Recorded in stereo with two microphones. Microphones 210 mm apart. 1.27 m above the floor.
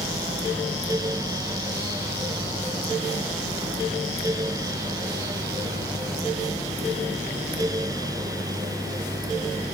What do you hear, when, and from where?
Only background noise.